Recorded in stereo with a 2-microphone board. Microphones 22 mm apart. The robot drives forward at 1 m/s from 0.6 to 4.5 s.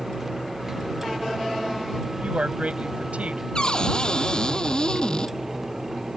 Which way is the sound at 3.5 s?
40° left (ahead or behind).